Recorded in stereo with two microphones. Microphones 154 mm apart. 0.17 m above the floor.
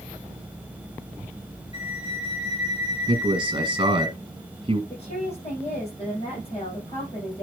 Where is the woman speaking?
40° left (ahead or behind), 7 m.